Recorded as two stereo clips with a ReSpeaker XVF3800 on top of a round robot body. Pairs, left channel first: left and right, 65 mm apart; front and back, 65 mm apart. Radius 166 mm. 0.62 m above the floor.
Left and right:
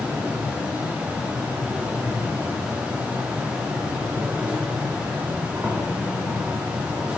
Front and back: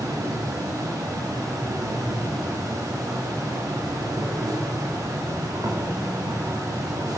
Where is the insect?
160° right, 2.0 m.